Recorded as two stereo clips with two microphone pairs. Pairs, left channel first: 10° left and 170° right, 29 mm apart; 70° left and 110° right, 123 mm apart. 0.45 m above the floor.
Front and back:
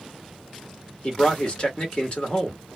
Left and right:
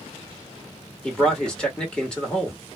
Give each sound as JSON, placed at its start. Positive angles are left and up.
{"t": 1.0, "sound": "a man speaking", "azimuth_deg": -5, "distance_m": 1.5}